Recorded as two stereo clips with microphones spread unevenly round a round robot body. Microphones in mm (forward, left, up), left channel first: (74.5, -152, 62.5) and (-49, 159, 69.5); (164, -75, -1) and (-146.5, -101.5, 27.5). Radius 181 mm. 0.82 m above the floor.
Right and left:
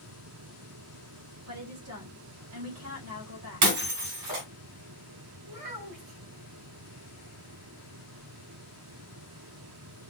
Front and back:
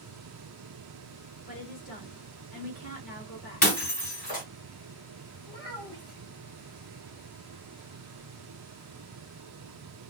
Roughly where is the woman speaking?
Left.